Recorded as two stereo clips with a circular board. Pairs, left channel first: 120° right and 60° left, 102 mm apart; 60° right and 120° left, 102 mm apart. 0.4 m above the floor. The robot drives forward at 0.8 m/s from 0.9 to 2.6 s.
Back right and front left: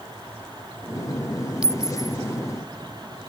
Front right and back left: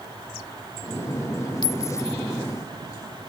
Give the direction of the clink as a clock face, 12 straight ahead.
1 o'clock.